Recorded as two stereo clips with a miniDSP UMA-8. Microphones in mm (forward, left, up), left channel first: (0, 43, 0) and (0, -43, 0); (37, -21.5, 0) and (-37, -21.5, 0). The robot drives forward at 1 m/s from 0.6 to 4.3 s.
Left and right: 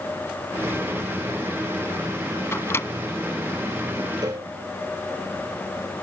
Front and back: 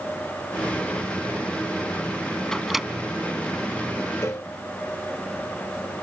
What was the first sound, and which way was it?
A microwave, 75° left.